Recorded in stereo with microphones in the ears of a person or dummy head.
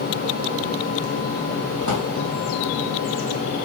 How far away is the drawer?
About 1.6 m.